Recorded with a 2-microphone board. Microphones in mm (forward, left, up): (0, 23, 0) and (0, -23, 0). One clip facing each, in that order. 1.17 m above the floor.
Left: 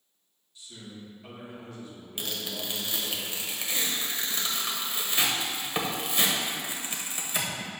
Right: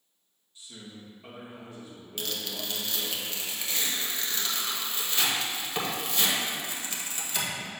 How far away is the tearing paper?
About 1.1 m.